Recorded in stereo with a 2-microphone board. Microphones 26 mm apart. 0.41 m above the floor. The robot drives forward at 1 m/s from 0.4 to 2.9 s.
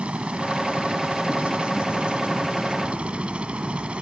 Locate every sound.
0.0 s a helicopter: 55° right (ahead or behind)